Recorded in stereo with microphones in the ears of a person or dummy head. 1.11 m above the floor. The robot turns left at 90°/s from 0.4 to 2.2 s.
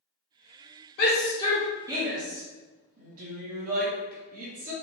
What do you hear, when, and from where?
1.0 s a shout: 65° left (ahead or behind), 0.9 m; by 4.7 s 45° right (ahead or behind), 0.9 m